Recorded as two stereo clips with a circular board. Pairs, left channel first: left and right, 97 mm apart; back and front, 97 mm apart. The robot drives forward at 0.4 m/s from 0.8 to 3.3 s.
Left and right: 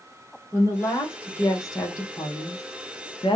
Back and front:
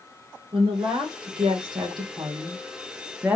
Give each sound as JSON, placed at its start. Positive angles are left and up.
{"t": 0.5, "sound": "a woman speaking", "azimuth_deg": 30, "distance_m": 1.5}